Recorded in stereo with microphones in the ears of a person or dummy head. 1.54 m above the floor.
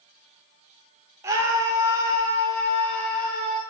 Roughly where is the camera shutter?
No camera shutter in this recording.